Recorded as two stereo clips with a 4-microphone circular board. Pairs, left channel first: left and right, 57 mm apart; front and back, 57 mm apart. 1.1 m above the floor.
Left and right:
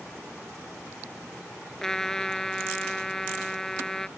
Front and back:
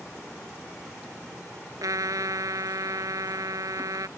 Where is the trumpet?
170° left.